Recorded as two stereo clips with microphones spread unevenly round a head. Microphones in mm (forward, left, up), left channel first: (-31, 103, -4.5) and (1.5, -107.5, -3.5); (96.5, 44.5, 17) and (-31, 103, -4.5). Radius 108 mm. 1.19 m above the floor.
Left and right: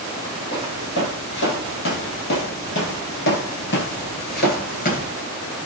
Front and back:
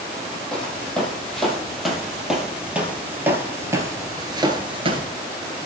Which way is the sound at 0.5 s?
55° left.